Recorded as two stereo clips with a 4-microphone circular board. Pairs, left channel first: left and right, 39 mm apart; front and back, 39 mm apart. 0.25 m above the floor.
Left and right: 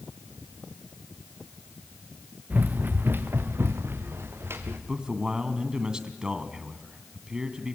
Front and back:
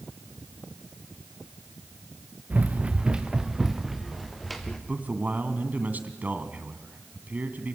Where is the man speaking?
155° right, 2 m.